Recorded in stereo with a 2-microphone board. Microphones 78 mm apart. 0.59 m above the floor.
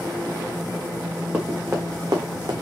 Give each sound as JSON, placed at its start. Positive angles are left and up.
{"t": 1.3, "sound": "running footsteps", "side_deg": -25, "distance_m": 2.5}